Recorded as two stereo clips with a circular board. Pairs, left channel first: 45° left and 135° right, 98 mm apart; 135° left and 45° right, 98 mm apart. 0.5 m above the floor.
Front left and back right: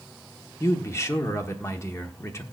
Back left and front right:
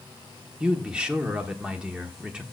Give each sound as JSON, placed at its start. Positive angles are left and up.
{"t": 0.6, "sound": "a man speaking", "azimuth_deg": 25, "distance_m": 1.1}